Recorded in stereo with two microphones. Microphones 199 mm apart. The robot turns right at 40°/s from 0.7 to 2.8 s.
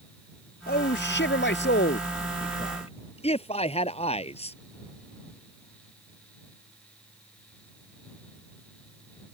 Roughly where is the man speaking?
Ahead left.